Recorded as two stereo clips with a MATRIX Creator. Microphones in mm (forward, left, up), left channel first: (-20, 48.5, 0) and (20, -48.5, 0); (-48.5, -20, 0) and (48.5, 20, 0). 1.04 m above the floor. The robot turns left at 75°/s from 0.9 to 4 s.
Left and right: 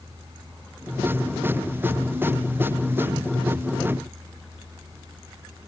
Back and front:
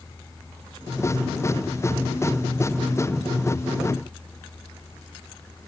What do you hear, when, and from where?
Only background noise.